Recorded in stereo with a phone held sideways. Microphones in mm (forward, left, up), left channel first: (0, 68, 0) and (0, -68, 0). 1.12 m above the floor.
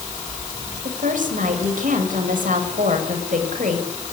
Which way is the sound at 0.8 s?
75° right (ahead or behind).